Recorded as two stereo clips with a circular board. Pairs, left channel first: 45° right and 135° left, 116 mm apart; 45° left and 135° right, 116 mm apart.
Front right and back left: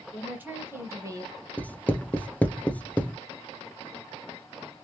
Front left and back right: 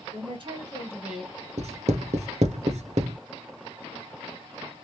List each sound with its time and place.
0.1 s a woman speaking: 150° right, 1.7 m; by 1.4 s 120° left, 1.1 m
1.6 s writing: 120° right, 0.6 m